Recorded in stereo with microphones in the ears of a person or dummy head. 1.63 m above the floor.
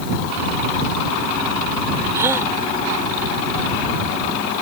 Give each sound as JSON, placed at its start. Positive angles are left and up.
{"t": 2.1, "sound": "a gasp", "side_deg": -15}